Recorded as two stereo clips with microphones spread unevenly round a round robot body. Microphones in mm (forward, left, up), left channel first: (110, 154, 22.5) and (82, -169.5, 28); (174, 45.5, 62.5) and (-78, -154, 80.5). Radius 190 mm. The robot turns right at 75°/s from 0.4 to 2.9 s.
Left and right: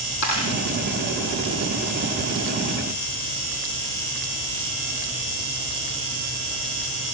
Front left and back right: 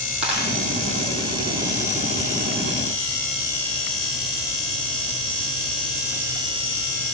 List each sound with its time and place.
0.2 s a dropped coin: 130° left, 9.5 m; by 0.5 s 140° left, 9.5 m